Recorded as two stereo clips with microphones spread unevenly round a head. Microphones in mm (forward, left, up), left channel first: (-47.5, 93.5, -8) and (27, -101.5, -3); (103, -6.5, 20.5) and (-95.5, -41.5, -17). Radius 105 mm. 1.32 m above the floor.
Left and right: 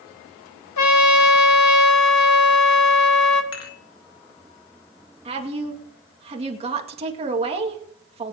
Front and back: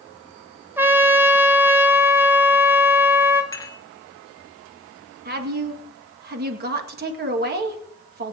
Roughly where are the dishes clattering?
Left.